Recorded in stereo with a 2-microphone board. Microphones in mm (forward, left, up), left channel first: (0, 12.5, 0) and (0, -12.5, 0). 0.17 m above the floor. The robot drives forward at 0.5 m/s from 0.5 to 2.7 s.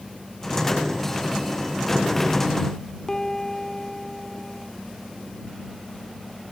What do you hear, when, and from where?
3.1 s a piano: 20° left (ahead or behind), 0.9 m